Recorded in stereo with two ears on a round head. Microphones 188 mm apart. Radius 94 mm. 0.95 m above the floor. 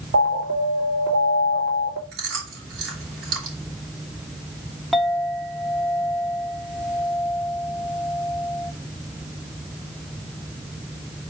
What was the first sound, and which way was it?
An alarm, 55° right (ahead or behind).